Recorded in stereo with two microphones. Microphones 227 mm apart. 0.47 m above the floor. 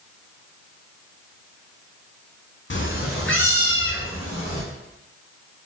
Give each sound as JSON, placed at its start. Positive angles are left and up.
{"t": 2.7, "sound": "a cat meowing", "side_deg": 60, "distance_m": 0.5}